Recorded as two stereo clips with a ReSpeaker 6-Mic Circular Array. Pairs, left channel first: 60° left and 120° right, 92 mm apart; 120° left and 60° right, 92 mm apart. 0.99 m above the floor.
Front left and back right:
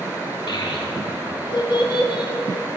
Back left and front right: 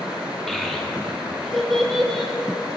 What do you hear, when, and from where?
0.5 s a child speaking: 30° left, 0.7 m